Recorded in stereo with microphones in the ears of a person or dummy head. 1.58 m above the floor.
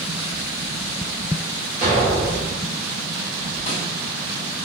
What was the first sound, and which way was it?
An explosion, 40° right (ahead or behind).